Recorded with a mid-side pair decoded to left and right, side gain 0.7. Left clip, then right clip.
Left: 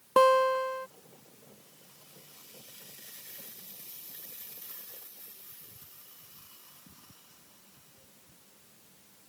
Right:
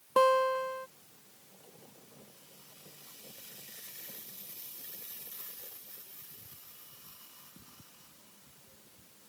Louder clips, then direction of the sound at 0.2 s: Left 3 dB; 15° left.